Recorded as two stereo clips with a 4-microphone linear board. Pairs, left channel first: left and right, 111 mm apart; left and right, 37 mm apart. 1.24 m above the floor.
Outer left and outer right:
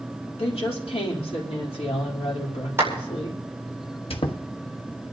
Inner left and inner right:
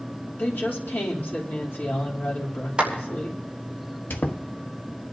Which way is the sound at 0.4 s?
70° left (ahead or behind).